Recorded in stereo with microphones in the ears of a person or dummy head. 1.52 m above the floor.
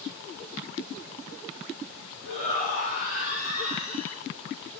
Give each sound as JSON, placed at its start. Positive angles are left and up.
{"t": 2.2, "sound": "a shout", "side_deg": 40, "distance_m": 3.5}